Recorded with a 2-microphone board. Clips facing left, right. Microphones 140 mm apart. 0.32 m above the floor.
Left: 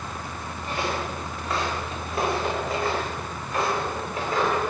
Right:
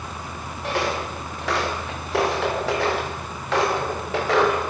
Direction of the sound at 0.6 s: 75° right (ahead or behind).